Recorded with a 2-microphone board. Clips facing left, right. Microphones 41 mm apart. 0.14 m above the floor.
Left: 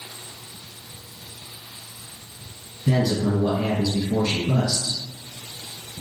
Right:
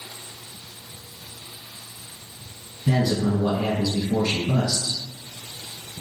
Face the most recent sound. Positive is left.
turn(degrees=0)  # may be behind; listen again after turning